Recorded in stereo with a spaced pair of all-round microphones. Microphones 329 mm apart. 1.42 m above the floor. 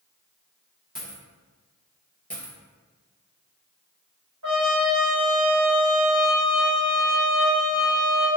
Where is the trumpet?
65° right (ahead or behind), 1.9 m.